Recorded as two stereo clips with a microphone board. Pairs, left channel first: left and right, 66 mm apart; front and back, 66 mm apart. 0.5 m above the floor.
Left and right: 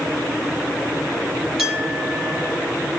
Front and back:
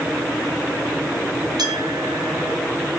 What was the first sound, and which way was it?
A clink, 170° right.